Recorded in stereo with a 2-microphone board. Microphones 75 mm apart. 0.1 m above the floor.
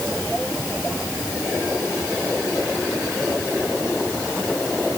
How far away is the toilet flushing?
I don't hear a toilet flushing.